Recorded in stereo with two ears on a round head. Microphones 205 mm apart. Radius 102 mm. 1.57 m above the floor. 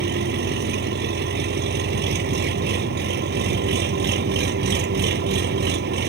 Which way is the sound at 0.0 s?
45° right (ahead or behind).